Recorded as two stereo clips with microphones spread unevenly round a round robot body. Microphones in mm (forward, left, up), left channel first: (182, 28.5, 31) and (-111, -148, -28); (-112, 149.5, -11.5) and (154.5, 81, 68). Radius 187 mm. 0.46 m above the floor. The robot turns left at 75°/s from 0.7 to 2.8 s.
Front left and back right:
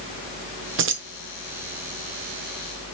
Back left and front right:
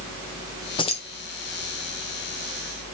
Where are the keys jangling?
150° right, 0.7 m; by 1.0 s 165° right, 0.7 m.